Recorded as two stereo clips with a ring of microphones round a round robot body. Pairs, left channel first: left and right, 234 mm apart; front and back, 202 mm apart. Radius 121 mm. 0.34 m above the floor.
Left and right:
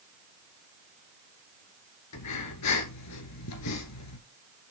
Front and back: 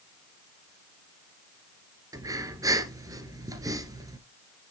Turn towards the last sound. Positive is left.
turn(degrees=105)